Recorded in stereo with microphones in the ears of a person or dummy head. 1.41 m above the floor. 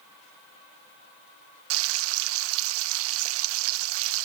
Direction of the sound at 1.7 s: 65° right (ahead or behind).